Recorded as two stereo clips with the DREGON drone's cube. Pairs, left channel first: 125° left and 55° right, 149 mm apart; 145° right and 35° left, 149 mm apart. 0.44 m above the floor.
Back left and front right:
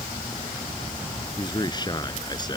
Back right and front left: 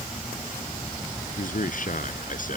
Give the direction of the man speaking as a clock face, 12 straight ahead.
6 o'clock.